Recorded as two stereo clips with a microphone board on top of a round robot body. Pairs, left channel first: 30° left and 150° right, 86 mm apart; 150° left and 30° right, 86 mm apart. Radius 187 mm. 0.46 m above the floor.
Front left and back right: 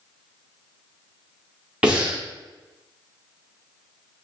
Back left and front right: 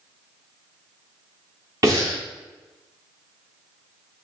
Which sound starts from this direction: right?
Breathing, at 1.8 s.